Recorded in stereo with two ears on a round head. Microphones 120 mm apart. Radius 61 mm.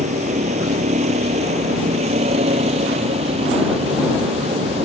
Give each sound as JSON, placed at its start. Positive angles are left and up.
{"t": 0.0, "sound": "a vehicle", "side_deg": -50}